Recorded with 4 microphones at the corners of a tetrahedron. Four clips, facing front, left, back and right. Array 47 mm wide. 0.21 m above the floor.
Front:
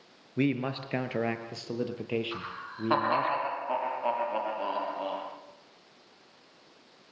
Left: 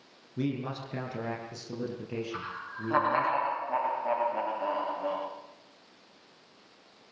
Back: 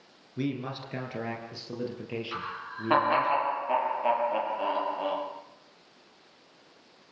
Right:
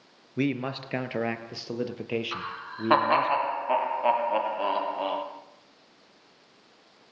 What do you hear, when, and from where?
0.4 s a man speaking: 55° right, 3 m; by 3.3 s 70° right, 5.5 m
2.3 s laughter: 100° right, 7 m